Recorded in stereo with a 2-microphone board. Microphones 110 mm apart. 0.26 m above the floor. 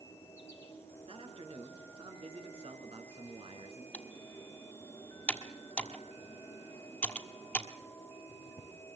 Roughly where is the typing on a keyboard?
Centre.